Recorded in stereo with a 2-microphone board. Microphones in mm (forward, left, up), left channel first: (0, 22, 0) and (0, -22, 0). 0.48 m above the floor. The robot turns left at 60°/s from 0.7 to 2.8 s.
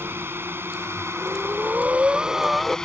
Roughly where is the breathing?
Right.